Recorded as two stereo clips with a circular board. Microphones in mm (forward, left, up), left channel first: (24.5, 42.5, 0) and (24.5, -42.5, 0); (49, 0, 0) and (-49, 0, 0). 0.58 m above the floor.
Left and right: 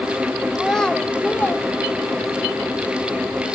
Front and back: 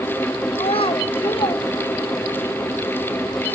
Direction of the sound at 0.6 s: 5° left.